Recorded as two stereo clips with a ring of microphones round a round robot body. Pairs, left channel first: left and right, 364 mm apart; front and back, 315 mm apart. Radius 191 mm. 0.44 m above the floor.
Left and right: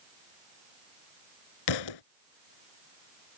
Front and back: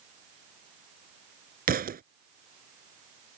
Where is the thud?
115° left.